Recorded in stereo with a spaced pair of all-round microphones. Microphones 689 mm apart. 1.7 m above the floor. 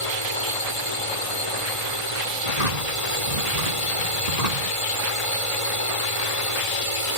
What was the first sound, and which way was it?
A drone, 50° left (ahead or behind).